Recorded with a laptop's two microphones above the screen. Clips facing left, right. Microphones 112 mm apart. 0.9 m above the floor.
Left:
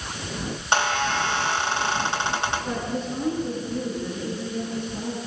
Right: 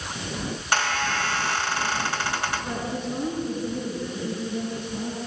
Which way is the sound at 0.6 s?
25° left (ahead or behind).